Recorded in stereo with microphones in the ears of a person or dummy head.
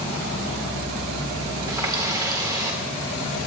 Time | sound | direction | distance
1.7 | a running tap | 20° right (ahead or behind) | 2.5 m